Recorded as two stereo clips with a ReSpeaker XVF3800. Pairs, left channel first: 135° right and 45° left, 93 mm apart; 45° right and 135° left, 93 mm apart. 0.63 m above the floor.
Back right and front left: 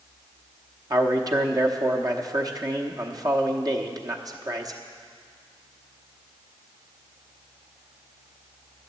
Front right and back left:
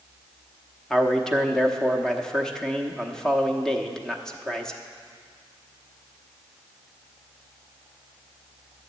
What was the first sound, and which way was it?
A man speaking, 35° left.